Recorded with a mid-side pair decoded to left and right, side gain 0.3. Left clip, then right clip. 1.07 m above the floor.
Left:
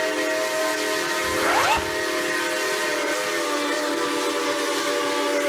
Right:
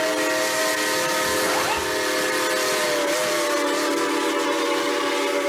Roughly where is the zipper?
Ahead left.